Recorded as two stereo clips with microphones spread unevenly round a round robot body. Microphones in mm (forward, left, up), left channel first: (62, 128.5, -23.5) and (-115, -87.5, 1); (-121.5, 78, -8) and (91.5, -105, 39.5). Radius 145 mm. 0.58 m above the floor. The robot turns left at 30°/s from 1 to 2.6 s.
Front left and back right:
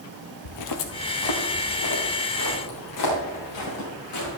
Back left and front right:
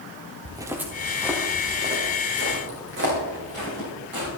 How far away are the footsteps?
About 0.9 m.